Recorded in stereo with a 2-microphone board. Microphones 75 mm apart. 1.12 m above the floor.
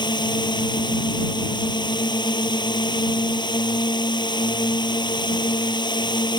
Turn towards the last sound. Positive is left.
turn(degrees=85)